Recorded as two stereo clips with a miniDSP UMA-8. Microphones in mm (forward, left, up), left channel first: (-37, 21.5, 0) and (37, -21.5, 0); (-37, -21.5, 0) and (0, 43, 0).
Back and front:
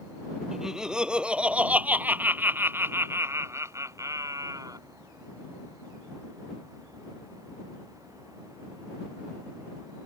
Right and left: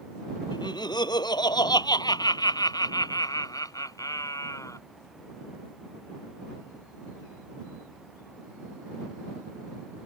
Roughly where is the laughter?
Behind right.